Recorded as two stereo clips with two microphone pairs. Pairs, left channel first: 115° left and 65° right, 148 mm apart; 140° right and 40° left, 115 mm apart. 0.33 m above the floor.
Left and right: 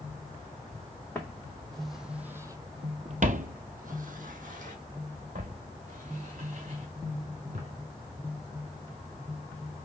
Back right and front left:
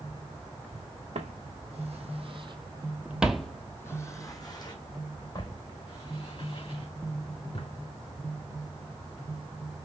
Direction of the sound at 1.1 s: 35° left.